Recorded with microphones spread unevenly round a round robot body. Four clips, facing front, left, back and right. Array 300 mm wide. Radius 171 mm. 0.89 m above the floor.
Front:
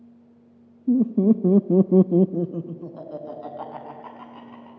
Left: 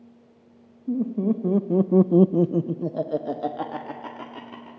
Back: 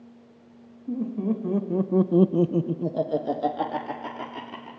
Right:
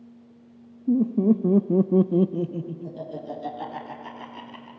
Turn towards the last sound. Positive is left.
turn(degrees=140)